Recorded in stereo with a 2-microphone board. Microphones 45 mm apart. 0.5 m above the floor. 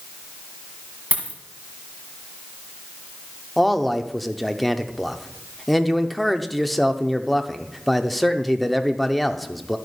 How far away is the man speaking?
About 0.8 m.